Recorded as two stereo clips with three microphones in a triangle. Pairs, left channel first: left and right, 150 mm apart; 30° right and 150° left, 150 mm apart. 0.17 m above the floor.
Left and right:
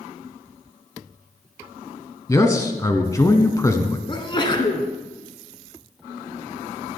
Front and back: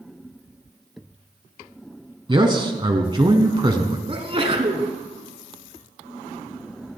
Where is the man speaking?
135° left, 1.1 m.